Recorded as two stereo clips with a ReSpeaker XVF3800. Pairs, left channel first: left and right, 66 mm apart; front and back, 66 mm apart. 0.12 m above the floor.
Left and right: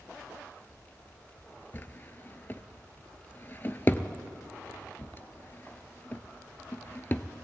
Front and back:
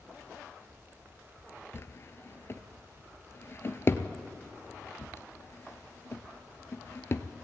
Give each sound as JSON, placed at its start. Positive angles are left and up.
{"t": 1.7, "sound": "a drawer", "azimuth_deg": 35, "distance_m": 0.6}